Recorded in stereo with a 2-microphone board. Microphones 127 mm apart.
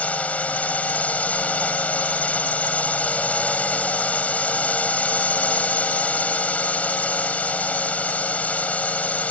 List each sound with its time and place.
0.0 s a drone: 10° left (ahead or behind)